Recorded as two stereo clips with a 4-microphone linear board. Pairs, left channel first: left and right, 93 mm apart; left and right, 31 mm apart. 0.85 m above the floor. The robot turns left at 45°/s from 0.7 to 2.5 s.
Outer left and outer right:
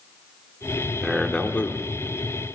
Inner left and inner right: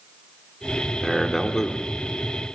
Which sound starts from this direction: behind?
A man speaking, at 1.0 s.